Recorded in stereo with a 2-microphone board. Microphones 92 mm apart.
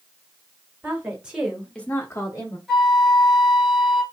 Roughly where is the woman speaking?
Centre.